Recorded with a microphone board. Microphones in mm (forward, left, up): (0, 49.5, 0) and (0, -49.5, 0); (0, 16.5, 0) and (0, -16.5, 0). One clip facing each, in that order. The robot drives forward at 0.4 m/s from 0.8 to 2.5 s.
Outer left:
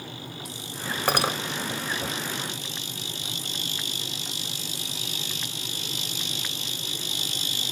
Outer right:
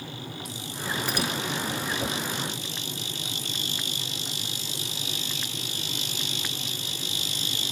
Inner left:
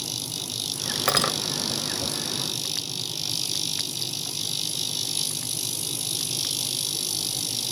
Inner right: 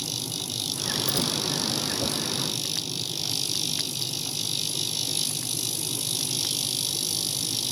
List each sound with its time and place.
1.1 s cutlery clinking: 80° left; by 1.4 s 75° left (ahead or behind)